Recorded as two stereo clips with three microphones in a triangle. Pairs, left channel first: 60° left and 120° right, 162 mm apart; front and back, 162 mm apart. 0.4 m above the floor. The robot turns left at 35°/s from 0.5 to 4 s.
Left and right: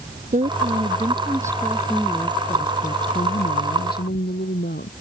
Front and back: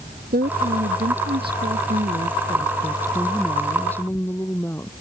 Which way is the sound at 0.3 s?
160° right.